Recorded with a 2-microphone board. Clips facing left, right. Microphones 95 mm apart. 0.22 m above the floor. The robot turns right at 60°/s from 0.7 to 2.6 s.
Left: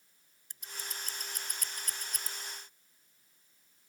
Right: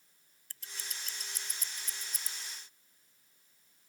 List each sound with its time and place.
0.5 s scissors: 20° left (ahead or behind); by 2.3 s 60° left (ahead or behind)